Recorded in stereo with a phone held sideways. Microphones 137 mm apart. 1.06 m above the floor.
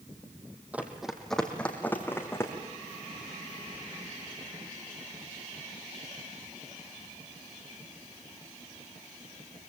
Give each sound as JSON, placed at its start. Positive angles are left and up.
{"t": 0.7, "sound": "running footsteps", "side_deg": -10, "distance_m": 2.5}